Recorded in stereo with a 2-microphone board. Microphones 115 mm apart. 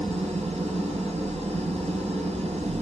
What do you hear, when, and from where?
0.0 s an engine running: 70° right (ahead or behind), 5 m